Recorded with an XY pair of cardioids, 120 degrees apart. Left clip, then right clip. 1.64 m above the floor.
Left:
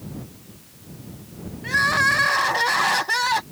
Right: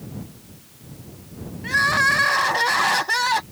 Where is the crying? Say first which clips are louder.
Right 1 dB; 5° right.